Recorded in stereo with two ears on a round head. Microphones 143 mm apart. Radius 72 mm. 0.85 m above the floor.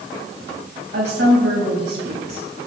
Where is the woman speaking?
70° right (ahead or behind), 4.5 m.